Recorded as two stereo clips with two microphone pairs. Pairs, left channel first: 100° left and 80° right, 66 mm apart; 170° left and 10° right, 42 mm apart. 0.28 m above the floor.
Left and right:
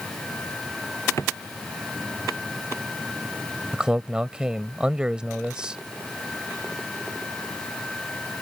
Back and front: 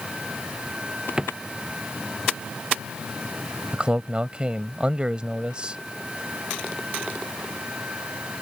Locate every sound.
1.2 s a drawer: 60° left
3.7 s a man speaking: 20° right